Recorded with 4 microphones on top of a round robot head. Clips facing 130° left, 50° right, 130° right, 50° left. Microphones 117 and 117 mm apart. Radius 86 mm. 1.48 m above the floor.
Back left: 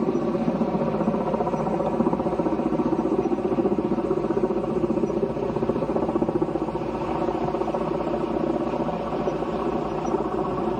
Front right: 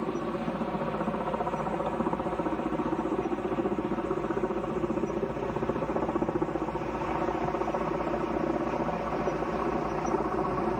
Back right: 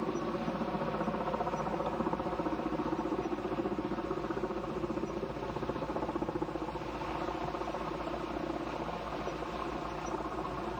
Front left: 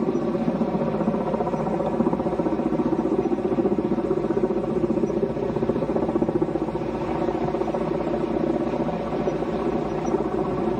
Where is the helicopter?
85° left; by 10.8 s 60° left.